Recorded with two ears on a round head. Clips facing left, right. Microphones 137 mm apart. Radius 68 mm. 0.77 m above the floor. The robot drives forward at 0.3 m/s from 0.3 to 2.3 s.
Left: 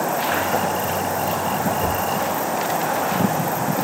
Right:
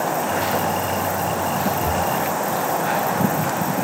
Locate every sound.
1.8 s knocking: 45° left (ahead or behind), 4 m